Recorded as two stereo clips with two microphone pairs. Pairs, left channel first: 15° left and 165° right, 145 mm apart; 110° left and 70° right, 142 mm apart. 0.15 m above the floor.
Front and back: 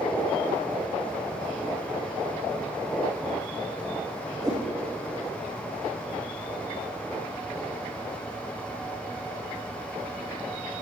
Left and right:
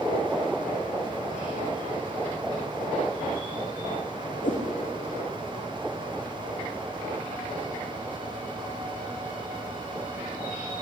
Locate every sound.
4.4 s a whoosh: 130° left, 5 m